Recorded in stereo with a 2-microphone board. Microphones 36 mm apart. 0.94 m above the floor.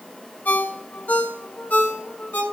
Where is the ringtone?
60° left (ahead or behind), 2.5 m.